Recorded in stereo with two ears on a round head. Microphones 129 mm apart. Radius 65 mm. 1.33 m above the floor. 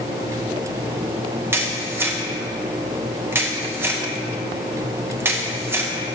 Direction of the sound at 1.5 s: 15° right (ahead or behind).